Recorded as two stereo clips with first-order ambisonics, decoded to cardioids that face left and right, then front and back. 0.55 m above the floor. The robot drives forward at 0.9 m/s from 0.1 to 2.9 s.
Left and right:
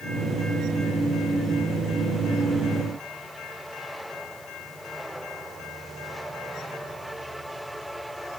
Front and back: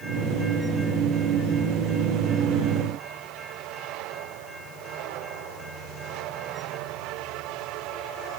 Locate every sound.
Only background noise.